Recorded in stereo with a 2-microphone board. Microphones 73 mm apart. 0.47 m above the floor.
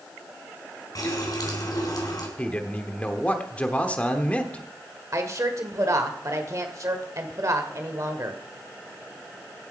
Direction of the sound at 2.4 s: 20° left (ahead or behind).